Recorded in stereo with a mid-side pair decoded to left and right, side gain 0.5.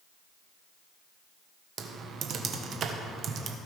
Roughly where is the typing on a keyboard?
Ahead right.